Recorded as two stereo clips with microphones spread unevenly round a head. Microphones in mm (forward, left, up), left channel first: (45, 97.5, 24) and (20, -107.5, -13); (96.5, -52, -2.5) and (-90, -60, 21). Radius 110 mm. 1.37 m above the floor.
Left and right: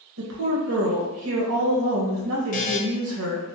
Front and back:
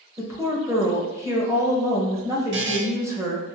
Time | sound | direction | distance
0.2 | a woman speaking | 100° right | 1.4 m
2.5 | a buzzer | 140° left | 0.5 m